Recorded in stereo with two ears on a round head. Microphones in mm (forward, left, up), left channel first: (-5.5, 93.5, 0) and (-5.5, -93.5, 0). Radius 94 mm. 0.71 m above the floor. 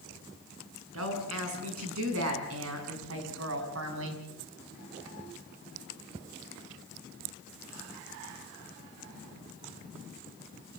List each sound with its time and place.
0.9 s a woman speaking: 80° right, 6.5 m; by 4.2 s 70° right (ahead or behind), 4.5 m